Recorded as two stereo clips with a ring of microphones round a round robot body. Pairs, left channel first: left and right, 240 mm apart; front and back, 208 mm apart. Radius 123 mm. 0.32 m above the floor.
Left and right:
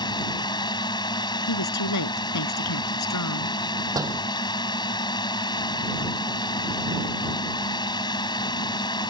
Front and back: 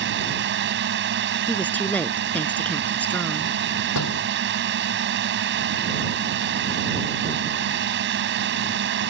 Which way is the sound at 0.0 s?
160° left.